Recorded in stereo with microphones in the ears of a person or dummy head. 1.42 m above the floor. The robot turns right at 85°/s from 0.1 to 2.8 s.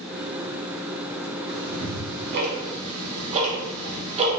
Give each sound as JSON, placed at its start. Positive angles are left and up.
{"t": 1.5, "sound": "ticking", "side_deg": -20, "distance_m": 0.8}